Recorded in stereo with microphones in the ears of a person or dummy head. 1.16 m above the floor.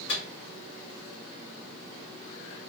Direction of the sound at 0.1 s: 65° left (ahead or behind).